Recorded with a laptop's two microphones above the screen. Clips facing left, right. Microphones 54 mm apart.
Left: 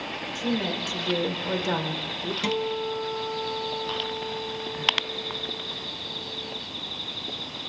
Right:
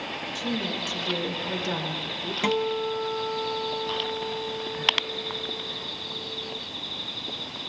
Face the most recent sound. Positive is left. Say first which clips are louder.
# right 3 dB
turn(degrees=-25)  # may be behind; listen again after turning